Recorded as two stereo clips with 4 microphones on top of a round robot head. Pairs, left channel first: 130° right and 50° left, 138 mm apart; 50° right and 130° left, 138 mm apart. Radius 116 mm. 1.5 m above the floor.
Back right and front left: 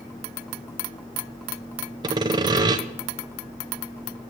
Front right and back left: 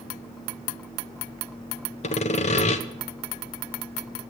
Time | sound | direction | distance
2.0 | sawing | 10° right | 1.0 m